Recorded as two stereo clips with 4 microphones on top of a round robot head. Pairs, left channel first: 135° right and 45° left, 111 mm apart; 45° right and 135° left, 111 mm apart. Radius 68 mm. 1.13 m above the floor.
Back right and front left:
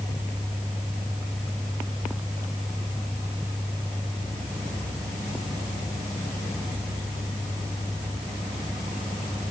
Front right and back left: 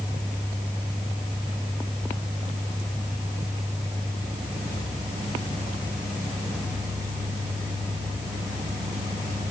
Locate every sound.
Only background noise.